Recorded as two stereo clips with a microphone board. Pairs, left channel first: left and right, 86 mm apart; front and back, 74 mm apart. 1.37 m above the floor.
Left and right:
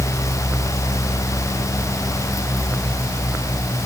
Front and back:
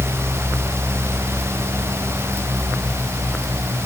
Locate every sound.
Only background noise.